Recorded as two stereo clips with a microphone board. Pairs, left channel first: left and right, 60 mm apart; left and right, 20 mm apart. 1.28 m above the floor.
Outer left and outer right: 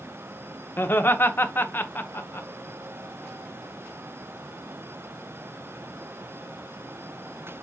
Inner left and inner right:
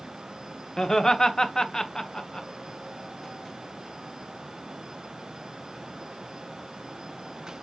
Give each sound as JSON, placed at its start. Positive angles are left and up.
{"t": 0.8, "sound": "laughter", "side_deg": 35, "distance_m": 0.8}